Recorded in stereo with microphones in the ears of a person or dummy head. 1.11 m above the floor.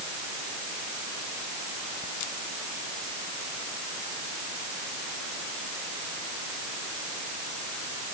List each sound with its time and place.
Only background noise.